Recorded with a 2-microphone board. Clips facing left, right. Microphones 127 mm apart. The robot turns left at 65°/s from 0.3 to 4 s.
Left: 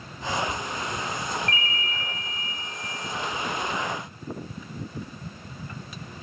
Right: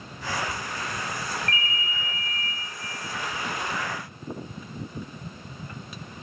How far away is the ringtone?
About 0.5 m.